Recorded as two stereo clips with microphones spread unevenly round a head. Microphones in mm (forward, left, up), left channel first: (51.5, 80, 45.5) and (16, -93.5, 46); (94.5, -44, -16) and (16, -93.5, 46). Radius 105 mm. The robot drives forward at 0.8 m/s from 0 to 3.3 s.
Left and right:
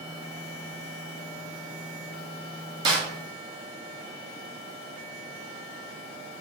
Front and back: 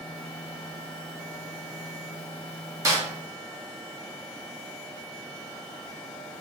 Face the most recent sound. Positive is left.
turn(degrees=-170)